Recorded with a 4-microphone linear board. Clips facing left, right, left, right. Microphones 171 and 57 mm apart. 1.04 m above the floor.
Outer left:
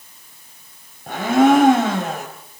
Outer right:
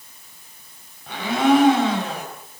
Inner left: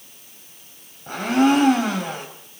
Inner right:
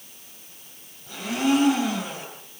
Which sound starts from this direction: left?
A blender, at 1.1 s.